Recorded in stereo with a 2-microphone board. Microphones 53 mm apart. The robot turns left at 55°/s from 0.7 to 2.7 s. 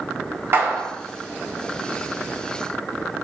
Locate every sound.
0.5 s a clap: 50° right (ahead or behind), 3.5 m; by 0.9 s 60° right (ahead or behind), 3.5 m